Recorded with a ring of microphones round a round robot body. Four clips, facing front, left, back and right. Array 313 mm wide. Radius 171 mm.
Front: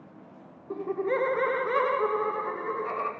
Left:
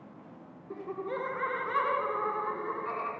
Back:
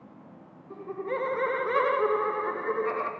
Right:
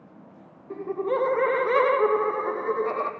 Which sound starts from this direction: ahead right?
Laughter, at 0.7 s.